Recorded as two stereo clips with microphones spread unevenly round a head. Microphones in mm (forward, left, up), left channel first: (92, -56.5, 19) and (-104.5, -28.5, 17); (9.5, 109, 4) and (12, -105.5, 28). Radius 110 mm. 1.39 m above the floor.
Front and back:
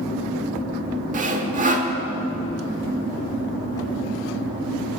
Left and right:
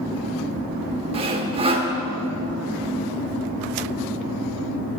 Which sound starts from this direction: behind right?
Sawing, at 1.1 s.